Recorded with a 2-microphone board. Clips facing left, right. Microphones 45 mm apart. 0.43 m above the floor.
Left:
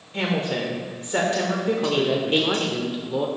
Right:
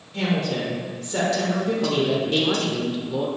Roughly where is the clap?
No clap in this recording.